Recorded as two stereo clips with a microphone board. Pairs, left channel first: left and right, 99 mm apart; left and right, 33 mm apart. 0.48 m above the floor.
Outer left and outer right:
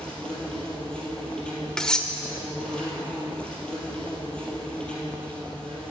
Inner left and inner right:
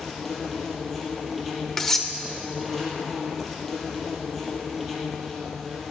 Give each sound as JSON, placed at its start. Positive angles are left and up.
{"t": 0.0, "sound": "an insect", "side_deg": 10, "distance_m": 3.0}
{"t": 1.8, "sound": "cutlery clinking", "side_deg": 5, "distance_m": 0.9}